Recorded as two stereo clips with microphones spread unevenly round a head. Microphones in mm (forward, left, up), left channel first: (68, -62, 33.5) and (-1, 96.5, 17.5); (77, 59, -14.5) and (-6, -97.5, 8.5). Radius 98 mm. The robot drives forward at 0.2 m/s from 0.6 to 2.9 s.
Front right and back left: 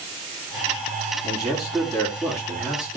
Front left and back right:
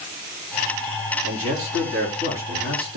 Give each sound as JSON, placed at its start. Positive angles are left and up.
{"t": 1.2, "sound": "a man speaking", "azimuth_deg": -140, "distance_m": 4.0}